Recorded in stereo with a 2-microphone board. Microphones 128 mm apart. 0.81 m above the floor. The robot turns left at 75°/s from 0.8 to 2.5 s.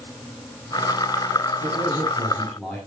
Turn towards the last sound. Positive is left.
turn(degrees=175)